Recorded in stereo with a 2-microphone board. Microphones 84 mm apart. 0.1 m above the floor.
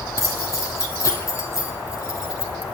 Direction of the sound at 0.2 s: 40° left (ahead or behind).